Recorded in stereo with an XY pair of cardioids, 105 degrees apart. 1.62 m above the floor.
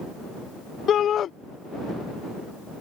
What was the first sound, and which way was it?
A shout, 55° left.